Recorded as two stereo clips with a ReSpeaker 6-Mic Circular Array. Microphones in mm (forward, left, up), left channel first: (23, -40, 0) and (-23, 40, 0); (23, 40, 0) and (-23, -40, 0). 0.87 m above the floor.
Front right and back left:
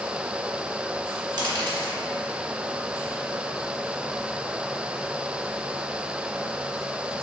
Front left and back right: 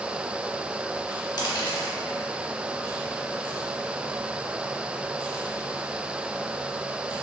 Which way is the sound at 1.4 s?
90° left.